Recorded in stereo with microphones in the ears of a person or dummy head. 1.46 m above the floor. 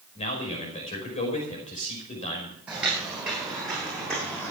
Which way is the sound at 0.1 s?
40° left (ahead or behind).